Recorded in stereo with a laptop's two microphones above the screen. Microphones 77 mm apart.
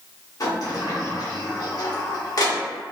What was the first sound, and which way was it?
A sliding door, 50° left (ahead or behind).